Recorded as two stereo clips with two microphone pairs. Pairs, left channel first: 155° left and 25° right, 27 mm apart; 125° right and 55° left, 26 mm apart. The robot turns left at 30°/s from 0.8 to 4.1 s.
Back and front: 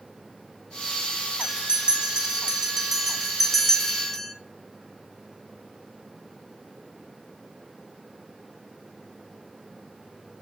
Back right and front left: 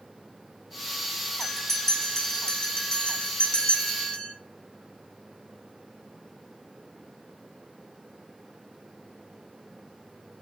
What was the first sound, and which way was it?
A bell, 50° right.